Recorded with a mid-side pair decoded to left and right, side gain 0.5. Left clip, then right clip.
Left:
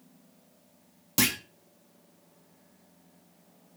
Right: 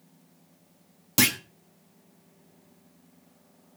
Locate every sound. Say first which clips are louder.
1.2 s a clunk: right 3 dB; 20° right, 1.6 m